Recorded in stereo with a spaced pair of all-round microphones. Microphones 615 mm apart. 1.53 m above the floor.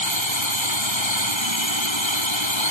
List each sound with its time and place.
0.0 s a drone: 45° left (ahead or behind)